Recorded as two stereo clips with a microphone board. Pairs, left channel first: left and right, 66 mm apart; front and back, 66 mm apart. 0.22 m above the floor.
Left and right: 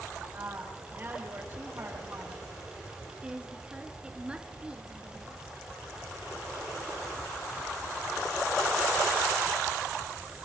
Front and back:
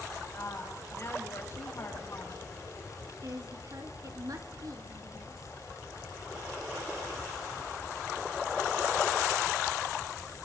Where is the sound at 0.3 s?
30° right, 6.5 m.